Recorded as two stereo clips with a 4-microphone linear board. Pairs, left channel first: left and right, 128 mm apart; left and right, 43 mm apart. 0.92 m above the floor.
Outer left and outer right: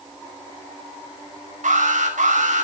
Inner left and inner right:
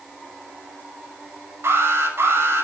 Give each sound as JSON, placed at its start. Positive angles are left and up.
{"t": 1.6, "sound": "an alarm", "side_deg": -80, "distance_m": 6.5}